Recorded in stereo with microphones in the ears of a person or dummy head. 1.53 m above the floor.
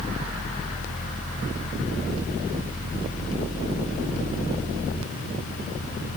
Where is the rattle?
No rattle in this recording.